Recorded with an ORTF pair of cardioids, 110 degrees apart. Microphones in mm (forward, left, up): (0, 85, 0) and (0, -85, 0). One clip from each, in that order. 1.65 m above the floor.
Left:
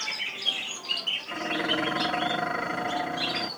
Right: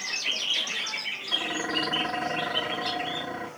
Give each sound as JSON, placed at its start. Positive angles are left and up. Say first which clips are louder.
{"t": 1.3, "sound": "dishes clattering", "louder": "right 4 dB", "azimuth_deg": 20, "distance_m": 2.5}